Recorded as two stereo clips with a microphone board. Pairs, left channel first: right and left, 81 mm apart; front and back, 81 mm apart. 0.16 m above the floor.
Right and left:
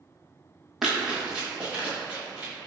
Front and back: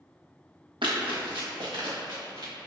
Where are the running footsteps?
175° left, 1.2 m; by 2.5 s 160° left, 2 m.